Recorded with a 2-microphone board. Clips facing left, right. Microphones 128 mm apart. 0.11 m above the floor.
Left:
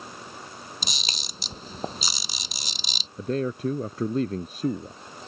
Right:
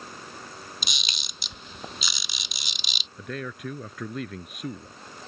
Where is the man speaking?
35° left (ahead or behind).